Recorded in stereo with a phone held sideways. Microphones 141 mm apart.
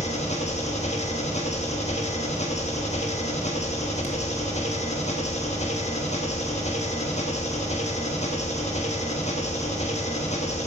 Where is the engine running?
50° left (ahead or behind), 0.8 m.